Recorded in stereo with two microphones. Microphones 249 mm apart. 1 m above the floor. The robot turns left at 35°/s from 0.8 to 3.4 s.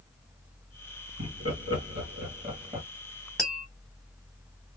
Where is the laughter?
65° right (ahead or behind), 1.7 m; by 2.9 s 20° right (ahead or behind), 1.7 m.